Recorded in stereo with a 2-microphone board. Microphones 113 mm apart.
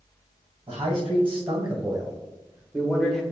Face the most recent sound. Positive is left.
turn(degrees=5)  # may be behind; listen again after turning